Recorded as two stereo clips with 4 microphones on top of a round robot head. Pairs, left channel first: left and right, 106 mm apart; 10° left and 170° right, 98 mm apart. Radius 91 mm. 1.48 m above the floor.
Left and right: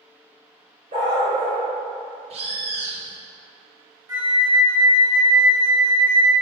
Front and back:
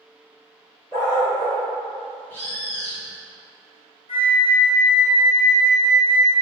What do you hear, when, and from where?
0.9 s a dog barking: 60° right, 2 m
2.3 s a bird: 70° right, 0.7 m
4.1 s a flute: 35° right, 1.5 m